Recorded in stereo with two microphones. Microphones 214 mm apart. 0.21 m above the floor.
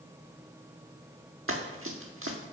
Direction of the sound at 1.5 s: 75° right (ahead or behind).